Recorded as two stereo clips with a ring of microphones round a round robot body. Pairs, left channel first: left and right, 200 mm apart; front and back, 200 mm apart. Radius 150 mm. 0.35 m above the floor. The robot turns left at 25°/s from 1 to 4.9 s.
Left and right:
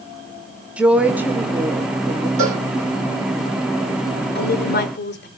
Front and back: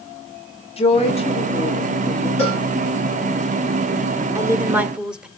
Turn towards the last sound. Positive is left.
turn(degrees=95)